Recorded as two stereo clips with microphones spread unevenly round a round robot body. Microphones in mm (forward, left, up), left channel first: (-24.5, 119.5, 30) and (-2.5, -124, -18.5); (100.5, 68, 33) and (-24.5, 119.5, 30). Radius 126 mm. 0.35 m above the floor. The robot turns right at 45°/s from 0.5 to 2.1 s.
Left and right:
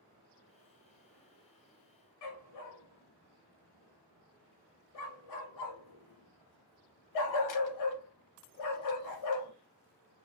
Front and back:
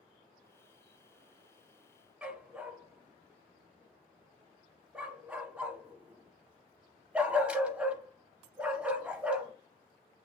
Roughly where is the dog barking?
Left.